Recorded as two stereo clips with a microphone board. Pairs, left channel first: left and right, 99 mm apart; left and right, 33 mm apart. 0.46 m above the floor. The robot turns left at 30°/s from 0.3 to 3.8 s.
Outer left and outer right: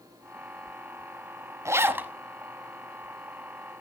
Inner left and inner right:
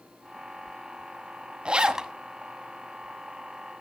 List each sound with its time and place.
1.6 s a zipper: 30° right (ahead or behind), 0.6 m; by 2.1 s 15° right (ahead or behind), 0.6 m